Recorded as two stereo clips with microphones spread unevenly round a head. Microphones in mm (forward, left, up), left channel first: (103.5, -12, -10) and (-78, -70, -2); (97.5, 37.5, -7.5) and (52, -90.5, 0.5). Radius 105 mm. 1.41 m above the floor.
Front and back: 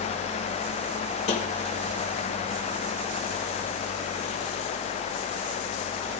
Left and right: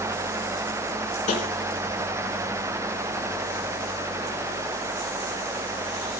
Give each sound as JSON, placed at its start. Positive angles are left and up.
{"t": 1.3, "sound": "tapping", "azimuth_deg": 70, "distance_m": 1.4}